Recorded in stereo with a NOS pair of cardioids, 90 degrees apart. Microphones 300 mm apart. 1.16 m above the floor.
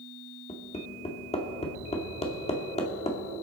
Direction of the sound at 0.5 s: 20° left.